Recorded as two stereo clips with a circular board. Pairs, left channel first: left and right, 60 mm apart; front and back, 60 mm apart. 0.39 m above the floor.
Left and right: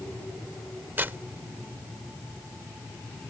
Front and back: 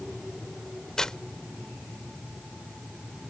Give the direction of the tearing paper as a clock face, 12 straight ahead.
2 o'clock.